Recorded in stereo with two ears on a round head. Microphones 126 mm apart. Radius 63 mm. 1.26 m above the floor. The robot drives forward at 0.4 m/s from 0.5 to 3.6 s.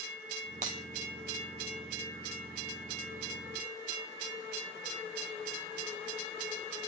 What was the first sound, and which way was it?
Breaking glass, 60° right (ahead or behind).